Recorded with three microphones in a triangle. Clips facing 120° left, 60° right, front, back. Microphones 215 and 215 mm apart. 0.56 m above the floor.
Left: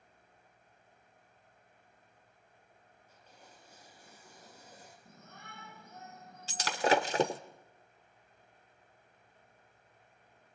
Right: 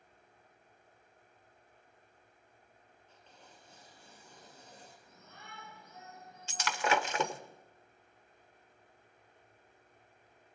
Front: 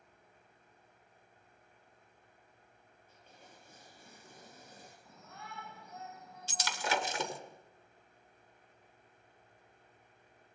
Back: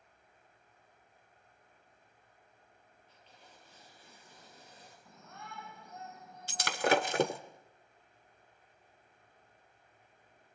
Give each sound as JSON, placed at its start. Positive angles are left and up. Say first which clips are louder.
{"t": 3.1, "sound": "tearing paper", "louder": "even, front 2 dB", "azimuth_deg": 40, "distance_m": 6.5}
{"t": 5.0, "sound": "a shout", "louder": "left 1 dB, back 2 dB", "azimuth_deg": 90, "distance_m": 5.5}
{"t": 6.5, "sound": "breaking glass", "louder": "left 4 dB, back 7 dB", "azimuth_deg": 170, "distance_m": 1.1}